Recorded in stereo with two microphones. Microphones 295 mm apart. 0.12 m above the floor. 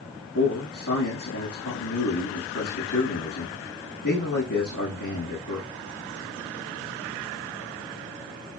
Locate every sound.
0.3 s a man speaking: 70° left (ahead or behind), 7 m